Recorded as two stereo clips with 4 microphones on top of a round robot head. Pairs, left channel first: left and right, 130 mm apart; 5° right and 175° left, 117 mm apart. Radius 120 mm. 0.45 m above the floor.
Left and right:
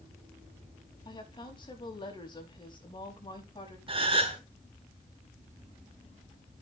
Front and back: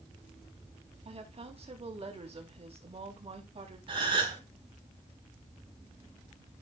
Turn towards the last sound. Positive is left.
turn(degrees=-135)